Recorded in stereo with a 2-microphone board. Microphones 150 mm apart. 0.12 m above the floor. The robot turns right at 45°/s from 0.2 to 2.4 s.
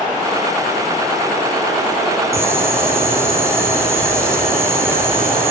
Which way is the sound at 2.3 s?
20° right (ahead or behind).